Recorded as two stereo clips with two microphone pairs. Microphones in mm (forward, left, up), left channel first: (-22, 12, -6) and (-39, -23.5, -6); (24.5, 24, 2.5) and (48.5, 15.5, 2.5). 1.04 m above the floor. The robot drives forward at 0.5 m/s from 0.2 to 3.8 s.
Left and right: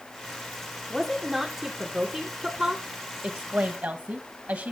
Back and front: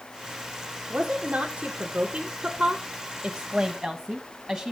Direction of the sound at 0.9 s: 40° right.